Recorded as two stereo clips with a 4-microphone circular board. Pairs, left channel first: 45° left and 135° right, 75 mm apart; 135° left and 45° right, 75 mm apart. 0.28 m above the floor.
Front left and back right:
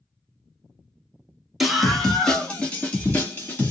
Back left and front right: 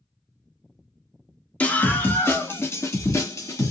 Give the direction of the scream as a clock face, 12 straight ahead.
7 o'clock.